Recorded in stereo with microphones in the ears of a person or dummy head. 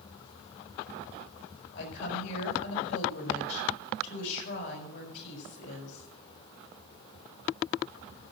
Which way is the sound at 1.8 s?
75° left (ahead or behind).